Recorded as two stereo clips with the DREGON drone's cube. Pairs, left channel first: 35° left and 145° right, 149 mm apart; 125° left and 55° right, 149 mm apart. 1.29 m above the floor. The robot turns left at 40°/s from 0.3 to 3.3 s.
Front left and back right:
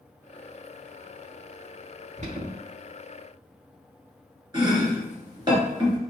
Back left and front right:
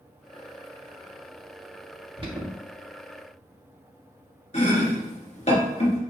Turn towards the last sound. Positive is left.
turn(degrees=160)